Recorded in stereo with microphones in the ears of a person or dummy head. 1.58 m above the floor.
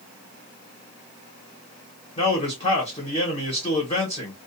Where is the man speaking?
35° left (ahead or behind), 1.3 m.